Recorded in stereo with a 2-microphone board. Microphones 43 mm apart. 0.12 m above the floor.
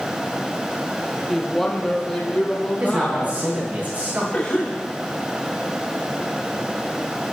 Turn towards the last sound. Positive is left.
turn(degrees=20)  # may be behind; listen again after turning